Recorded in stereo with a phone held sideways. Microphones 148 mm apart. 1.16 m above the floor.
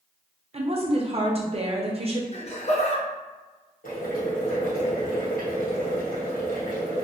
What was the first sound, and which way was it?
A woman speaking, 40° right (ahead or behind).